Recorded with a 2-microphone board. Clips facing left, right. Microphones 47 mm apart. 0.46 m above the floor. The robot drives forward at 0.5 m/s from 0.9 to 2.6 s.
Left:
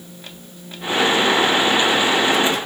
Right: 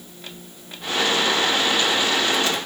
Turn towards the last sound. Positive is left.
No sound to turn to.